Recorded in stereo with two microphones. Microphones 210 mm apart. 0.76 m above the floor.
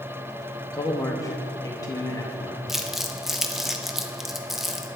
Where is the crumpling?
Centre (ahead or behind), 0.6 m.